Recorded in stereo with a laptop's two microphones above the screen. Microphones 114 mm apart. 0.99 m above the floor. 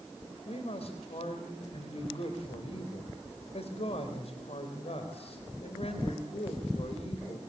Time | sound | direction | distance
0.5 | a man speaking | 60° left (ahead or behind) | 4 m